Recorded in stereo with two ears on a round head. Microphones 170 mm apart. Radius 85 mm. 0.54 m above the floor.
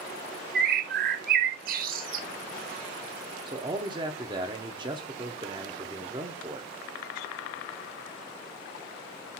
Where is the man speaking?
25° right (ahead or behind), 0.8 m.